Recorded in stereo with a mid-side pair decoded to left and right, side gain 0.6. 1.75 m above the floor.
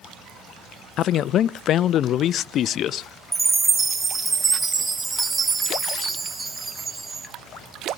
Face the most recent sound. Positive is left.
turn(degrees=-15)